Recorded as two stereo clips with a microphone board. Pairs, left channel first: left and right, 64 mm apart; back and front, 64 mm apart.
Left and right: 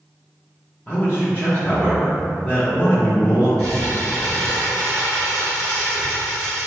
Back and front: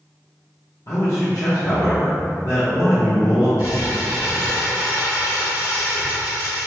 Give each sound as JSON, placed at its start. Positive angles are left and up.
{"t": 0.9, "sound": "a man speaking", "azimuth_deg": 155, "distance_m": 0.7}
{"t": 3.6, "sound": "crumpling", "azimuth_deg": 140, "distance_m": 1.7}